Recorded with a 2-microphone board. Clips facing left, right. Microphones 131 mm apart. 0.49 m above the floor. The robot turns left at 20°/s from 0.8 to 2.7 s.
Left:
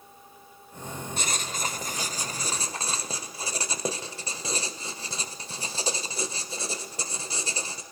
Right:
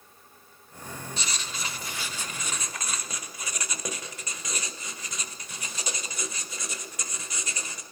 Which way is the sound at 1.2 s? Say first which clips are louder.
Left 7 dB; 70° left.